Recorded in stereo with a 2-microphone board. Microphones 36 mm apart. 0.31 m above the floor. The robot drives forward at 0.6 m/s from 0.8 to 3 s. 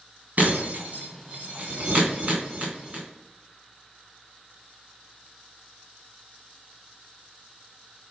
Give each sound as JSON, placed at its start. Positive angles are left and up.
{"t": 0.4, "sound": "breaking glass", "side_deg": -50, "distance_m": 3.5}